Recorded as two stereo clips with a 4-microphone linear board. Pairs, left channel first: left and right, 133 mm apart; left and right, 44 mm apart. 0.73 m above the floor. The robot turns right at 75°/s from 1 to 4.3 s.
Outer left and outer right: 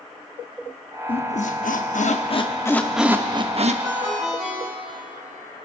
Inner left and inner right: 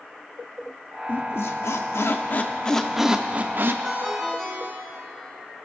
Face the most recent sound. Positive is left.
turn(degrees=0)